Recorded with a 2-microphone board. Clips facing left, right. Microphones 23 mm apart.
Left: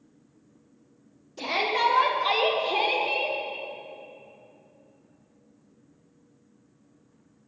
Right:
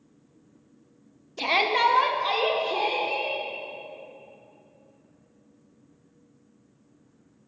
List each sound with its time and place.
1.4 s a shout: 45° right (ahead or behind), 0.8 m; by 3.4 s 45° left (ahead or behind), 1.4 m